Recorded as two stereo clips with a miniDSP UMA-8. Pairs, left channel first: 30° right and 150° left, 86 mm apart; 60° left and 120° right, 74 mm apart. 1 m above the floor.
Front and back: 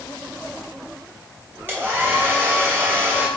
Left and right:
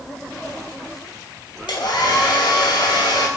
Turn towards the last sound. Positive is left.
turn(degrees=85)